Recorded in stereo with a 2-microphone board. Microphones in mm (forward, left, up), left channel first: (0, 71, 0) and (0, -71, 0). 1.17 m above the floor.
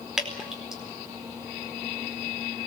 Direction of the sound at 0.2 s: 5° right (ahead or behind).